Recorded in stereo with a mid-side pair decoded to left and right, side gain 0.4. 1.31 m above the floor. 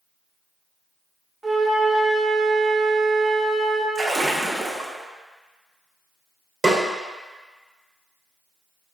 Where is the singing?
No singing in this recording.